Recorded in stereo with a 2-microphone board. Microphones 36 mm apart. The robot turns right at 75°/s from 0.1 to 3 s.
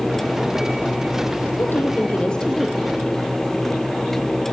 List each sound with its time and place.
1.6 s a woman speaking: 100° left, 3 m; by 2.8 s 170° right, 3 m